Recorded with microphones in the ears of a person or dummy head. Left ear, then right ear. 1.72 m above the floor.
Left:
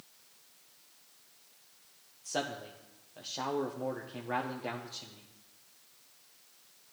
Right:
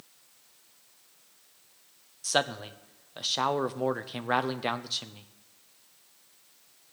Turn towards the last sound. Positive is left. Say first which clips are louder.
# right 8 dB
turn(degrees=-55)  # may be behind; listen again after turning